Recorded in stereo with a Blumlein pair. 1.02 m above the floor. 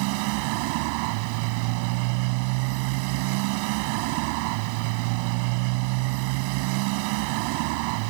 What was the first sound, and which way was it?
A motorcycle, 45° right.